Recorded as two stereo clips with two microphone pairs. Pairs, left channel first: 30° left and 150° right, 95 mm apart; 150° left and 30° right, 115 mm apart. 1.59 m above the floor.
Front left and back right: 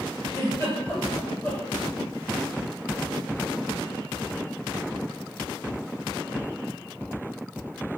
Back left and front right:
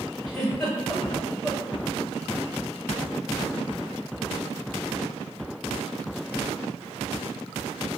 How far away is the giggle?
About 1.7 m.